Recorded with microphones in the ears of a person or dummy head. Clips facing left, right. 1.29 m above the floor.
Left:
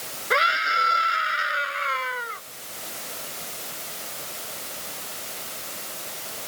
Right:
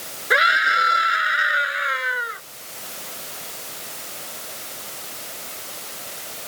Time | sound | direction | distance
0.3 | a scream | 15° right (ahead or behind) | ?